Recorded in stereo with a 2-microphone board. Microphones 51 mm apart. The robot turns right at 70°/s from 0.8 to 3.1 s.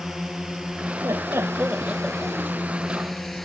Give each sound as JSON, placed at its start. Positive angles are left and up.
{"t": 0.0, "sound": "a drone", "side_deg": -10}
{"t": 1.0, "sound": "laughter", "azimuth_deg": -80}